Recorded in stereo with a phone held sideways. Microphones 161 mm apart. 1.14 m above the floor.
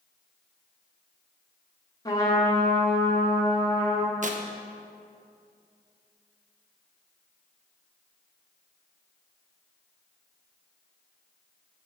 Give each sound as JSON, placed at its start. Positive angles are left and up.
{"t": 2.0, "sound": "a trumpet", "side_deg": 20, "distance_m": 2.0}
{"t": 4.2, "sound": "tearing paper", "side_deg": -50, "distance_m": 1.2}